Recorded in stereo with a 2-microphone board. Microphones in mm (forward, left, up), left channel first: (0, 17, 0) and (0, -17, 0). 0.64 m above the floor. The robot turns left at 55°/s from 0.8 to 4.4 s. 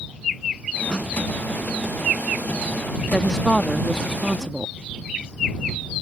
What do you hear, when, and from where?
0.9 s a snare drum: 25° left (ahead or behind); by 1.1 s 35° left (ahead or behind)
3.1 s a woman speaking: 45° left; by 4.7 s 25° right